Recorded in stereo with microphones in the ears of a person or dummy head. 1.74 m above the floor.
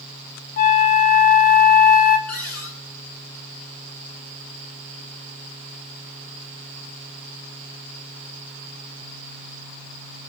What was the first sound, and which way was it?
A flute, 50° left (ahead or behind).